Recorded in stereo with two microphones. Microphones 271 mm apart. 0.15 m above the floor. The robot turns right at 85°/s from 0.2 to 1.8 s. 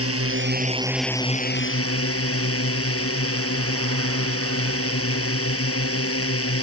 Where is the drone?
70° right; by 6.6 s 65° left.